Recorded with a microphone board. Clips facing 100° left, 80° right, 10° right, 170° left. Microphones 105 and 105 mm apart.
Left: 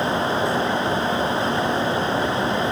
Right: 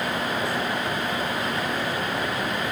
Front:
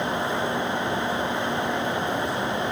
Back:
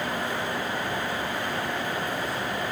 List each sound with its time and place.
Only background noise.